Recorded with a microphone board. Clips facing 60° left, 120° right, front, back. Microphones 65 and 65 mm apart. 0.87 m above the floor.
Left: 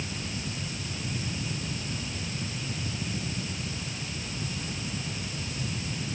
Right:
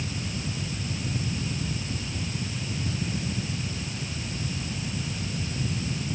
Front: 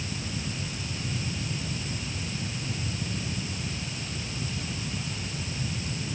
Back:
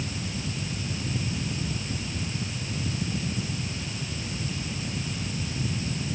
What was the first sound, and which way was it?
Only background noise.